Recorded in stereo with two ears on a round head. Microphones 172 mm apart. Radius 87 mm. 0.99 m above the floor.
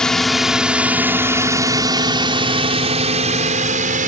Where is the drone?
5° left (ahead or behind); by 4.1 s 45° right (ahead or behind).